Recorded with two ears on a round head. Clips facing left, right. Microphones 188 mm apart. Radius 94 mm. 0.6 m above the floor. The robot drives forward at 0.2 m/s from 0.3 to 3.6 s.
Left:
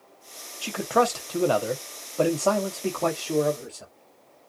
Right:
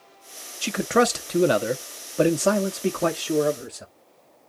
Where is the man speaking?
25° right (ahead or behind), 0.6 m; by 3.9 s 15° right (ahead or behind), 0.8 m.